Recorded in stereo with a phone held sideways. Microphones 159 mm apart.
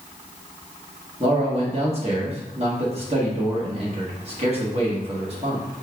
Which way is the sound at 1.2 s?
40° right (ahead or behind).